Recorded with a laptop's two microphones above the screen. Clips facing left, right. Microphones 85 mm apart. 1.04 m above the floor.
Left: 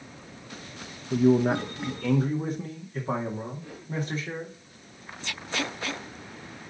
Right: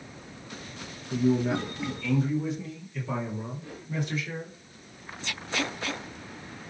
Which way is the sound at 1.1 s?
55° left (ahead or behind).